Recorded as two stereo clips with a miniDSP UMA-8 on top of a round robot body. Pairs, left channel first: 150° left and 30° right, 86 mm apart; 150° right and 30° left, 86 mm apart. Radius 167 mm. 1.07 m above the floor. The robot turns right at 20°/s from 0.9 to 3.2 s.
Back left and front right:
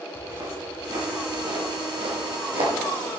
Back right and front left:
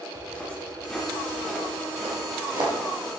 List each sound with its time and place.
0.1 s footsteps: 80° right, 4 m; by 2.7 s 15° right, 2.5 m